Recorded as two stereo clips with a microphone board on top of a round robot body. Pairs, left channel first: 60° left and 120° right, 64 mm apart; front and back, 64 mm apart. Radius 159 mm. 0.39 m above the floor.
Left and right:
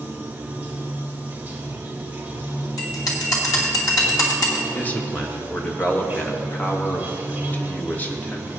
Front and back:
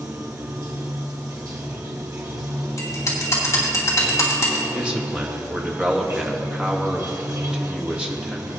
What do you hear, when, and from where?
0.0 s running water: 175° right, 2.0 m
2.8 s a bell: 40° left, 2.5 m
4.7 s a man speaking: 110° left, 1.6 m